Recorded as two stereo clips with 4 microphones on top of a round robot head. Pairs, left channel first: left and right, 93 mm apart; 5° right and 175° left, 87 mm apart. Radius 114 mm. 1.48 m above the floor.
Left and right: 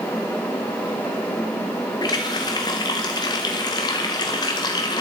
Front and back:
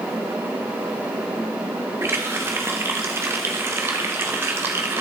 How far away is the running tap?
About 0.7 m.